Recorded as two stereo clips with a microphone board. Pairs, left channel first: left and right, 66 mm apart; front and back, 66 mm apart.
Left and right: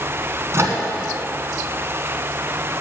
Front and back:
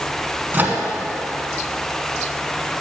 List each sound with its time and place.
0.5 s a microwave: 125° right, 1.6 m